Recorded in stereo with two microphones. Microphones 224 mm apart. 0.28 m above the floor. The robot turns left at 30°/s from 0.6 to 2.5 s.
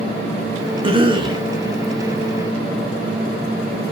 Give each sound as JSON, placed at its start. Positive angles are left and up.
{"t": 0.8, "sound": "a cough", "side_deg": -25, "distance_m": 1.1}